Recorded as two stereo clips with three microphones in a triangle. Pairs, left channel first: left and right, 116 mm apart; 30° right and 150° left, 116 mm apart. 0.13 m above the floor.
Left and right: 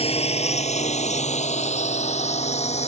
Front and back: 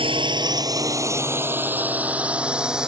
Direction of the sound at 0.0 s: 115° left.